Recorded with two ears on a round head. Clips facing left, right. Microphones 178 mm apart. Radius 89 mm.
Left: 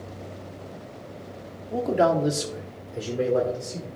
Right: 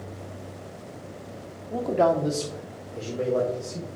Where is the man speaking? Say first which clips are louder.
Left 1 dB; centre (ahead or behind), 0.8 m; by 3.9 s 15° left (ahead or behind), 1.8 m.